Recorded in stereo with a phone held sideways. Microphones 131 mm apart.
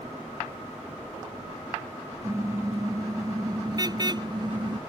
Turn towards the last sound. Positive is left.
turn(degrees=-40)  # may be behind; listen again after turning